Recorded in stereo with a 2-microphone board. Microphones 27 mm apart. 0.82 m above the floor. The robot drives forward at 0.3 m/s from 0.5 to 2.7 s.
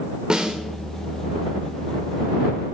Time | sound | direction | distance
0.3 | a snare drum | 35° right (ahead or behind) | 1.0 m